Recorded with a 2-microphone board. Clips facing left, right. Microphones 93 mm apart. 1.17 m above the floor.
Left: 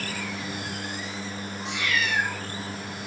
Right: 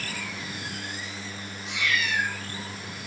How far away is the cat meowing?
About 6 m.